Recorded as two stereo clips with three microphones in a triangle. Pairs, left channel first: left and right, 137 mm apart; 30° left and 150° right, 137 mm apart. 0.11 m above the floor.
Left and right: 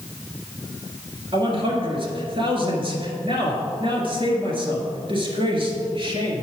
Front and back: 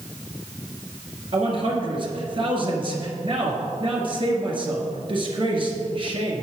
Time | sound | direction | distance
1.3 | a man speaking | 120° right | 1.6 m